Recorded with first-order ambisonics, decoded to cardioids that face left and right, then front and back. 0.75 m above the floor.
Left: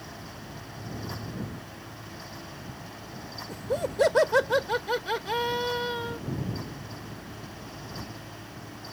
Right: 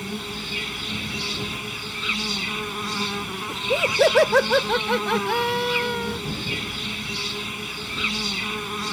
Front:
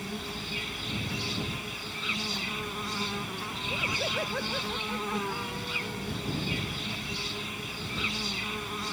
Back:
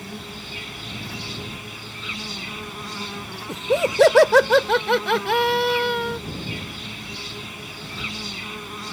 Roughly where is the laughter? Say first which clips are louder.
Right 9 dB, back 9 dB; behind.